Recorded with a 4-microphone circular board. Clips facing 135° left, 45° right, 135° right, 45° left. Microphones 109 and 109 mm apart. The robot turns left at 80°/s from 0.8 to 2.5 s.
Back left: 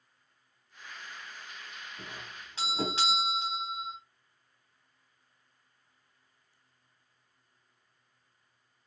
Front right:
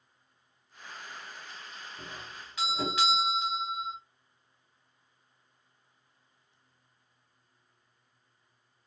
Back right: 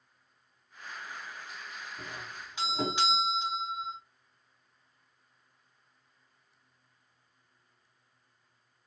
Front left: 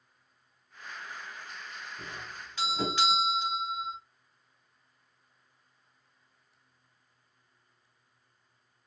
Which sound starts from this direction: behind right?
A doorbell, at 2.0 s.